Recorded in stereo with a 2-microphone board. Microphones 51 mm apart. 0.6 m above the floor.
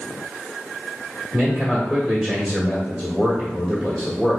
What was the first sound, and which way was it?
A man speaking, 5° right (ahead or behind).